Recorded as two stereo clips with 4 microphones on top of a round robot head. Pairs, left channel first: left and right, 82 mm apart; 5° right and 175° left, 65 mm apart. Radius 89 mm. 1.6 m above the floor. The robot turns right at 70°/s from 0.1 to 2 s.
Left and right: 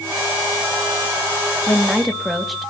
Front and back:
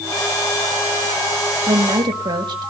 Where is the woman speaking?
155° left, 1.9 m; by 2.7 s straight behind, 1.9 m.